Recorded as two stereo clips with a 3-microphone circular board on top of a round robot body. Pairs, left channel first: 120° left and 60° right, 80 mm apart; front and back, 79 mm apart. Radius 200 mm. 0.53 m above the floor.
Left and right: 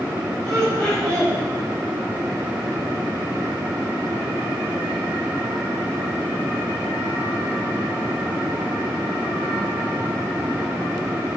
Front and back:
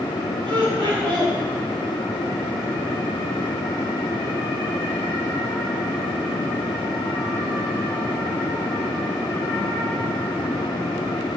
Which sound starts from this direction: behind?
Laughter, at 0.5 s.